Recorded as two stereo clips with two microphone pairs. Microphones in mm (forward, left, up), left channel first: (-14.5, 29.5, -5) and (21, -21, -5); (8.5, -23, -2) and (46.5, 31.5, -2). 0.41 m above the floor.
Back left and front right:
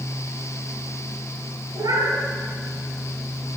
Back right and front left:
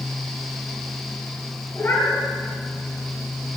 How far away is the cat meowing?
About 3.5 m.